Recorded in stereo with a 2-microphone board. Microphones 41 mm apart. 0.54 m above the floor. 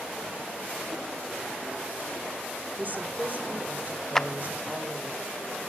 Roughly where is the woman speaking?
Right.